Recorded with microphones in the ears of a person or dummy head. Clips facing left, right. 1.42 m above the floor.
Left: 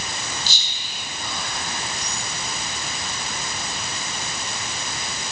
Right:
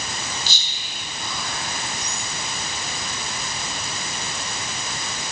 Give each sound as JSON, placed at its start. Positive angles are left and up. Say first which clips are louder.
{"t": 0.5, "sound": "whispering", "louder": "even", "side_deg": -75, "distance_m": 3.5}